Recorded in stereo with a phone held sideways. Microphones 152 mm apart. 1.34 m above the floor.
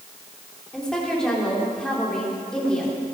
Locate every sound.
0.7 s a woman speaking: 5° left (ahead or behind), 3.5 m